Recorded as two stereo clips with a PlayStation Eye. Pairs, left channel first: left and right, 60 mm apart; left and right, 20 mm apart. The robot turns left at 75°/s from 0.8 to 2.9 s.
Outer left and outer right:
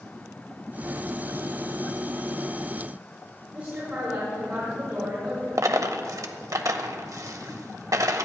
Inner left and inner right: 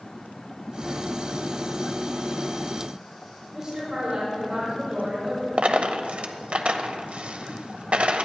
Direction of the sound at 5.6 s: 70° right (ahead or behind).